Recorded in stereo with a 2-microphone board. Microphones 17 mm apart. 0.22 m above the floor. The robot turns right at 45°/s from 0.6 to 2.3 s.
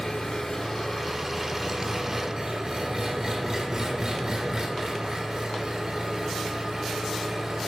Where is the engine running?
145° left, 1.2 m; by 7.7 s 140° right, 1.2 m.